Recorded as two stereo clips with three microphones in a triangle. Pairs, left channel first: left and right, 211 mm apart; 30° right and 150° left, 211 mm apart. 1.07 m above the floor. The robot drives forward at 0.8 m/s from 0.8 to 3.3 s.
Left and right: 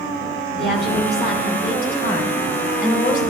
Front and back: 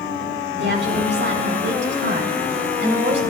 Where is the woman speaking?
120° left, 5.5 m; by 3.2 s 135° left, 6.5 m.